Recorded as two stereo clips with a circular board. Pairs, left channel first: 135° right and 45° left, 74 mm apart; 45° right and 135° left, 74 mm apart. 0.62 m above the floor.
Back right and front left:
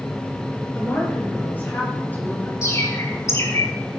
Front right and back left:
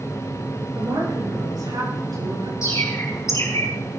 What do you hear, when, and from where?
0.8 s a woman speaking: 160° left, 8 m; by 2.5 s 155° left, 7.5 m
2.6 s a bird: 90° right, 5.5 m